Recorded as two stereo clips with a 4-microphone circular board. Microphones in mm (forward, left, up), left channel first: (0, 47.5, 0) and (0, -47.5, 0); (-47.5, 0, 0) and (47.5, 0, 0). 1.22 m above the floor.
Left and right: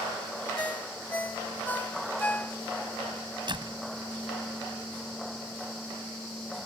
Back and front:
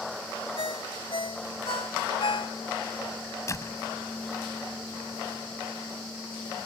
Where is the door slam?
125° right.